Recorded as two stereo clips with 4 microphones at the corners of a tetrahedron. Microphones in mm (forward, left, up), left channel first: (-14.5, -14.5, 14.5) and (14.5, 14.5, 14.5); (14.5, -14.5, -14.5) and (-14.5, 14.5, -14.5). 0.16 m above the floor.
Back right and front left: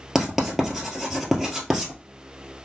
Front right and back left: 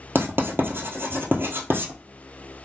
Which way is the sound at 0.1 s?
130° left.